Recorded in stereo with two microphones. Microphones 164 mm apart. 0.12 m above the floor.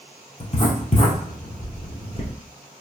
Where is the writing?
45° left (ahead or behind), 1.2 m.